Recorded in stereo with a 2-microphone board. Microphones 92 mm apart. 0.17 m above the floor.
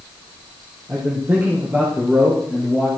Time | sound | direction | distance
0.9 | a man speaking | 25° right (ahead or behind) | 6 m